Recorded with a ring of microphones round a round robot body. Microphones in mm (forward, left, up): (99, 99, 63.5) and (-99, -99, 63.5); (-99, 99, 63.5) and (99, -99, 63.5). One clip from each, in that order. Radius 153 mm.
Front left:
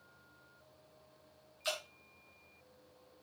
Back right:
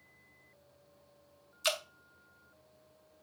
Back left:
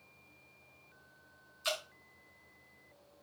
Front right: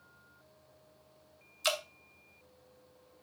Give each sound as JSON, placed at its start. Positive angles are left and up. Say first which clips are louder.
{"t": 1.6, "sound": "dripping", "louder": "back right 6 dB, front right 4 dB", "azimuth_deg": -95, "distance_m": 2.0}